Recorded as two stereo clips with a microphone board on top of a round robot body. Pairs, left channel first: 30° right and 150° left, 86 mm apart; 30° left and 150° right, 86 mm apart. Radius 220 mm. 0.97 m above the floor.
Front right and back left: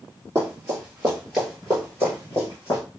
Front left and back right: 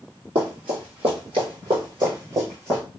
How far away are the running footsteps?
About 1.4 m.